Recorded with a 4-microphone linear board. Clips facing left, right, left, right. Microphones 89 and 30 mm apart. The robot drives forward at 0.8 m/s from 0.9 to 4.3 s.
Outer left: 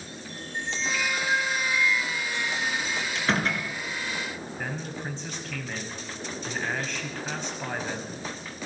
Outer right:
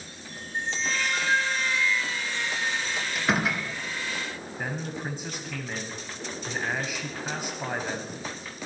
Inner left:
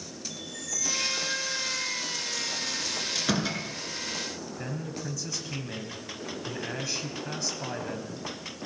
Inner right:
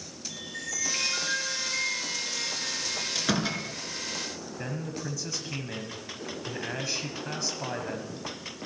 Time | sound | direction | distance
0.3 | a chime | 40° right (ahead or behind) | 2.5 m
3.1 | a door slam | 5° right (ahead or behind) | 3 m
4.6 | a man speaking | 10° right (ahead or behind) | 1.3 m